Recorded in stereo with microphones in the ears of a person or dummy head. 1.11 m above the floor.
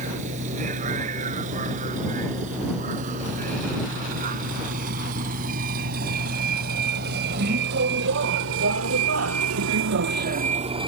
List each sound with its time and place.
0.0 s a vehicle: 40° right (ahead or behind); by 10.9 s 25° right (ahead or behind)